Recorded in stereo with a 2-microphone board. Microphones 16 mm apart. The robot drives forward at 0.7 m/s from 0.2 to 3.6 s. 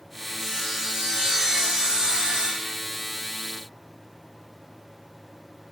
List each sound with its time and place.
0.4 s sawing: 35° right (ahead or behind), 2.5 m; by 2.8 s 70° right (ahead or behind), 1.5 m